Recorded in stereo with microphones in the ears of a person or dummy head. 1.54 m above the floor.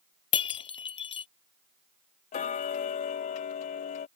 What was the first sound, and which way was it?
Breaking glass, 25° left (ahead or behind).